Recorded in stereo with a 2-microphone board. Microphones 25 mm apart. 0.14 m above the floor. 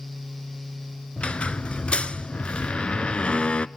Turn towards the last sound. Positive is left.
turn(degrees=45)  # may be behind; listen again after turning